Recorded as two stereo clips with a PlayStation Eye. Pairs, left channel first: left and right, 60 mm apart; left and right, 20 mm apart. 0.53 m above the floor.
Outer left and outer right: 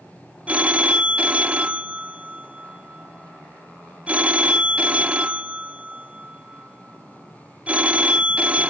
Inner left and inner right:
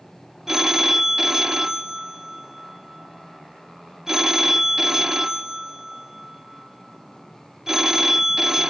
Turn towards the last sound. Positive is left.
turn(degrees=-20)  # may be behind; listen again after turning